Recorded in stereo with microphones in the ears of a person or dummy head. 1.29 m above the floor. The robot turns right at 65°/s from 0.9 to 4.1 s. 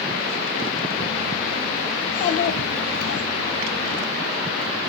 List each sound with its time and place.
2.0 s a child speaking: 30° left, 1.0 m; by 3.2 s 110° left, 1.0 m